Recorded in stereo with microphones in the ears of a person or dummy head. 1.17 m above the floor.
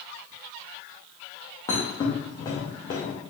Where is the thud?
15° left (ahead or behind), 0.6 m.